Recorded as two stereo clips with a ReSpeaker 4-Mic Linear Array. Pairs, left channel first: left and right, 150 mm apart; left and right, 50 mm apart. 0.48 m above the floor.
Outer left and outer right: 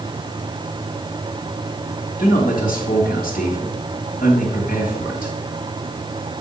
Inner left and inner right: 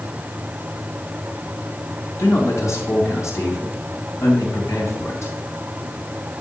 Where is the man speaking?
75° left (ahead or behind), 3 m.